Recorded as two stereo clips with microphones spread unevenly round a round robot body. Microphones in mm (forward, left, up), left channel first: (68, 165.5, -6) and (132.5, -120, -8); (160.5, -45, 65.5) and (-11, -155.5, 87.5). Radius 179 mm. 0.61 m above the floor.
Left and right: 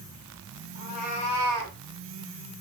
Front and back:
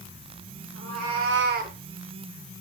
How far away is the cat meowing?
About 1.2 m.